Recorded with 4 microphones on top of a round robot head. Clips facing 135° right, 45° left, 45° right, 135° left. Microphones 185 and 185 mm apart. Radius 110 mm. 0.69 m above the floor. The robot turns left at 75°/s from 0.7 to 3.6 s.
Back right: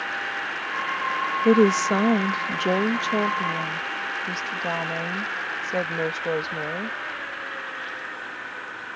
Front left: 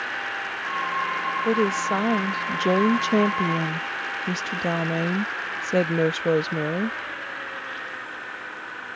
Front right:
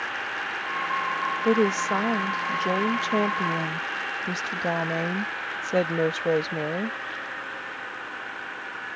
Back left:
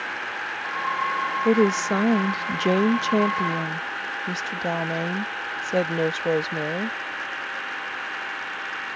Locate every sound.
1.4 s a woman speaking: 150° right; by 7.0 s 50° left